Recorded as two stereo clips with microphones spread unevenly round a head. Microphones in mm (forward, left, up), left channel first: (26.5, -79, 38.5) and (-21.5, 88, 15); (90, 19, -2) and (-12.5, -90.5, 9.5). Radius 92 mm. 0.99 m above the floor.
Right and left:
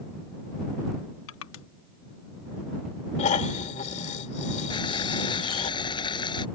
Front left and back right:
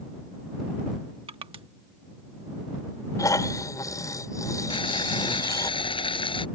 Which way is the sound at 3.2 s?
20° right.